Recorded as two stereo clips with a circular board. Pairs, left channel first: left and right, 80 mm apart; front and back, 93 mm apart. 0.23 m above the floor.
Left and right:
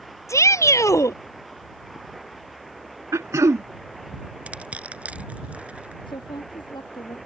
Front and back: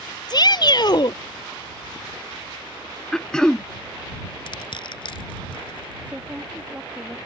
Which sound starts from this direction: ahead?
Crushing, at 4.5 s.